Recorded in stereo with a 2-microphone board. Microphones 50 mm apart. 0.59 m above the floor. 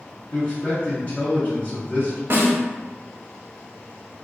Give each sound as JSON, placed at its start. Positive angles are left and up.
{"t": 0.3, "sound": "a man speaking", "side_deg": 30, "distance_m": 0.9}
{"t": 2.3, "sound": "a snare drum", "side_deg": -45, "distance_m": 0.9}